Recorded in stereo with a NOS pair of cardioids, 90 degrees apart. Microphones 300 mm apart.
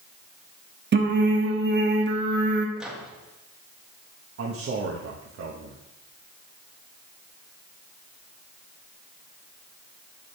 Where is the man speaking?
50° right, 1.4 m.